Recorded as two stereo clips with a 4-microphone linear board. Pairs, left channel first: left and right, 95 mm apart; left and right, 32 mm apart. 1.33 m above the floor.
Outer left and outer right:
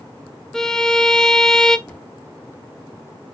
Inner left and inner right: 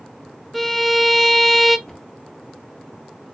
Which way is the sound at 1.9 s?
15° left (ahead or behind).